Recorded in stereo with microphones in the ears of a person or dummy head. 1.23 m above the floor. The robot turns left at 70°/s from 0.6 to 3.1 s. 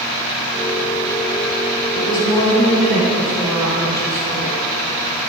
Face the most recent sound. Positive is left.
turn(degrees=-20)